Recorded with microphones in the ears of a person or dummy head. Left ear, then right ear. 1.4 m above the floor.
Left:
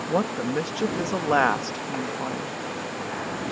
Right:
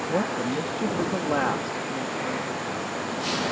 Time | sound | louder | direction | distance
0.1 | a woman speaking | left 3 dB | 50° left (ahead or behind) | ?